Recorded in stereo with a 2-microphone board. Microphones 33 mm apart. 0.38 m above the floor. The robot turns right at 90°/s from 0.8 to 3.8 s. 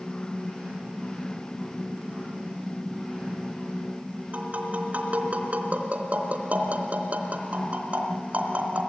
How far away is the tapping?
About 3.5 m.